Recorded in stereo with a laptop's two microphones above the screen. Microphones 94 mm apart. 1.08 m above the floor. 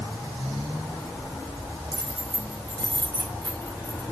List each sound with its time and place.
1.9 s keys jangling: 40° right (ahead or behind), 6.5 m; by 4.1 s 45° right (ahead or behind), 8 m